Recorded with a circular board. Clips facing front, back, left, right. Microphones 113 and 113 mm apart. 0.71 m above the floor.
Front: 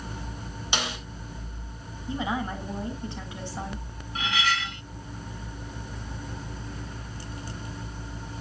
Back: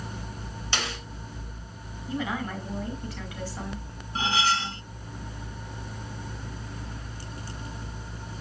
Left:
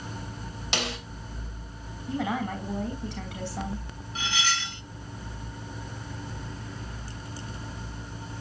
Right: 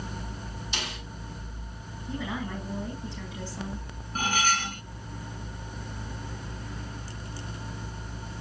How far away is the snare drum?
About 3 m.